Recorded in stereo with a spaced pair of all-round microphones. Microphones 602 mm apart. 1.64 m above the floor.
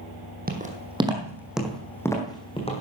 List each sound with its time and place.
0.5 s footsteps: 15° right (ahead or behind), 2.5 m; by 2.8 s 10° left (ahead or behind), 3 m